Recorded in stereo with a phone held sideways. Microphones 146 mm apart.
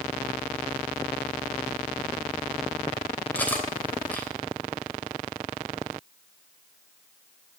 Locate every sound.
3.4 s cutlery clinking: 10° left (ahead or behind), 3 m